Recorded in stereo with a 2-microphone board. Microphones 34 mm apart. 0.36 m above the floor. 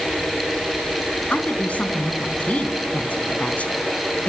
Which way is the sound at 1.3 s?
45° left (ahead or behind).